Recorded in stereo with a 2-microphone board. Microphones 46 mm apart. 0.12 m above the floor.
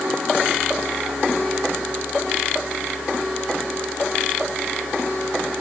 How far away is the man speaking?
I don't hear a man speaking.